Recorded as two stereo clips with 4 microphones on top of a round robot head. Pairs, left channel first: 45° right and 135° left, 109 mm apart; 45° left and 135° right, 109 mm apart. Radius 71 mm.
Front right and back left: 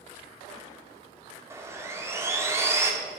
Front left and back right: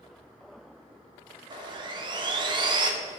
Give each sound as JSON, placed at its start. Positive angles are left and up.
{"t": 1.5, "sound": "sawing", "azimuth_deg": -165, "distance_m": 1.8}